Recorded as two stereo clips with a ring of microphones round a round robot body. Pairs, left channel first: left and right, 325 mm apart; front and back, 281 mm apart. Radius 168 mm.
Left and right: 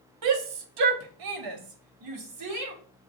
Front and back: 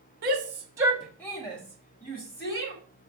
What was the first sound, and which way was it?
A shout, 125° right.